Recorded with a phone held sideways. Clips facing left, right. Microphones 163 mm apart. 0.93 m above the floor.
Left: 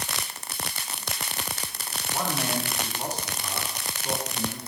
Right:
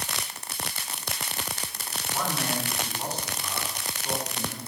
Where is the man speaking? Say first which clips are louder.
Left 1 dB; 15° left (ahead or behind), 8 m.